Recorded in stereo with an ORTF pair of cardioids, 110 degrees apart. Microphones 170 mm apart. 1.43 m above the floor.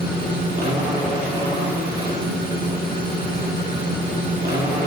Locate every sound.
0.0 s a machine running: 65° right, 3 m